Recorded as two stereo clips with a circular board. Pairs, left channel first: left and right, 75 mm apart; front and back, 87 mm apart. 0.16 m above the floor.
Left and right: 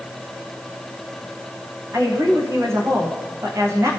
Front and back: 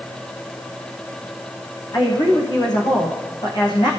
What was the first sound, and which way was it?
A woman speaking, 35° right.